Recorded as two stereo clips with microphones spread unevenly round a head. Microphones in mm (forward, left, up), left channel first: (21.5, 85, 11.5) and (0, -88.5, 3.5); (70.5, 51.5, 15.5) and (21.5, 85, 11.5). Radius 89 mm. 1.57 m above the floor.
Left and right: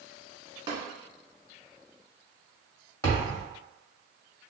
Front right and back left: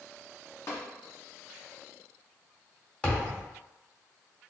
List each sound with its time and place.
0.7 s tapping: 35° right, 1.7 m
3.0 s a thud: 20° left, 1.8 m